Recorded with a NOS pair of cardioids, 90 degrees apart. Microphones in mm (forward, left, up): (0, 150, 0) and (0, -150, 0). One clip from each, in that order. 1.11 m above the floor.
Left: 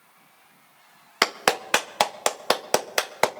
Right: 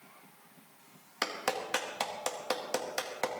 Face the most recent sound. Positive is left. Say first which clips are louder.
# left 11 dB
turn(degrees=60)